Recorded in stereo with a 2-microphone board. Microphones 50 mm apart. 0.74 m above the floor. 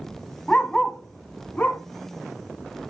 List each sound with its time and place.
0.5 s a dog barking: 15° left (ahead or behind), 1.6 m; by 1.8 s 30° left (ahead or behind), 2.5 m